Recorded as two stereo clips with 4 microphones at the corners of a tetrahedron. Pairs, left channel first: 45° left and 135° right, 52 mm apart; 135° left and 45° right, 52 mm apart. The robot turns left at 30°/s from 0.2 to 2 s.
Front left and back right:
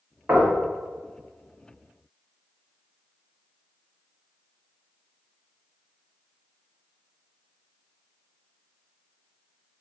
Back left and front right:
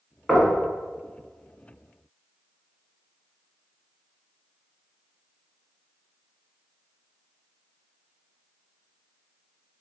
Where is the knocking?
130° right, 1.3 m; by 0.6 s 140° right, 1.3 m.